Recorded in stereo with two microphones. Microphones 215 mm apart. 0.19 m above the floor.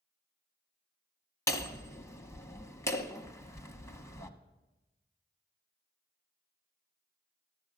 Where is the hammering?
15° left (ahead or behind), 0.9 m.